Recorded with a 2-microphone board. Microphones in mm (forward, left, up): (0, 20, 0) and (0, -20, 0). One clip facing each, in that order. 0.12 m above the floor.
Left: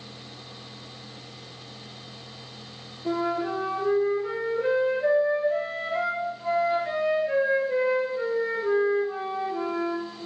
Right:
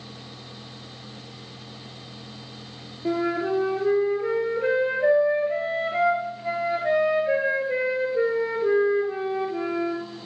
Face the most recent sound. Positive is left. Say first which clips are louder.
# right 2 dB
turn(degrees=-35)  # may be behind; listen again after turning